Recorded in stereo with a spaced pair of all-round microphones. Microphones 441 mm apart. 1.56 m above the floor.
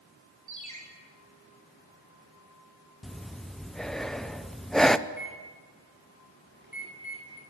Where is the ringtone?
40° right (ahead or behind), 5.5 m.